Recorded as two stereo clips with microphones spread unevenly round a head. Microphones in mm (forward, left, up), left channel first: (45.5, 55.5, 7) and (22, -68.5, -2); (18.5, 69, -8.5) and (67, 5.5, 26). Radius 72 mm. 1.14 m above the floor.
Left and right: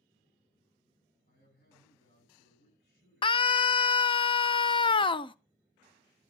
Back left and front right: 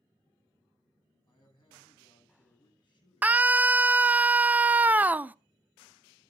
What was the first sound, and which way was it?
A man speaking, 105° left.